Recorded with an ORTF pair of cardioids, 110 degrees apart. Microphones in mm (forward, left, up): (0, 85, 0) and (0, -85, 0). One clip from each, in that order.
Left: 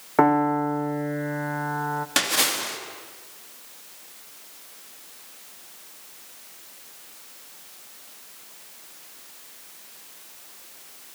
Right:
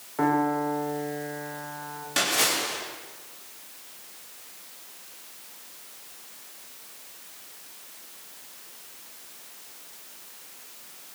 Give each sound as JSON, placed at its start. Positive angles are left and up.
{"t": 0.2, "sound": "a piano", "azimuth_deg": 70, "distance_m": 0.8}
{"t": 2.2, "sound": "a splash", "azimuth_deg": 45, "distance_m": 3.0}